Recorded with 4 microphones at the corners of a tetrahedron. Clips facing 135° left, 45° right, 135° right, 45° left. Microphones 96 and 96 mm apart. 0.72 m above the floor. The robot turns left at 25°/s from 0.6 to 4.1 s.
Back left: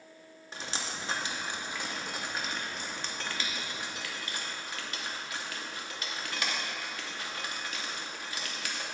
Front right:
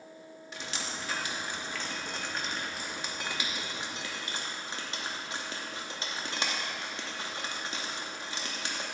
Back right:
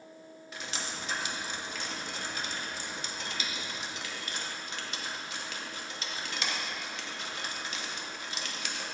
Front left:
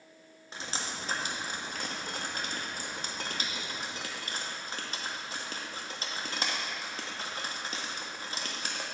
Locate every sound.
0.5 s dripping: 95° left, 0.8 m; by 8.8 s 5° left, 0.8 m